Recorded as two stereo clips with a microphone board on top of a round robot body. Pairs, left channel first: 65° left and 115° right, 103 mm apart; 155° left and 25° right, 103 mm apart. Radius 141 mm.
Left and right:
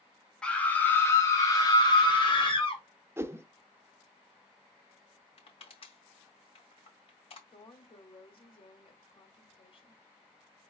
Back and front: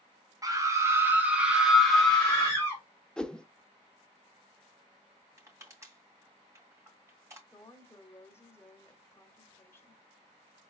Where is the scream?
5° right, 1.5 m; by 2.8 s 90° left, 1.8 m.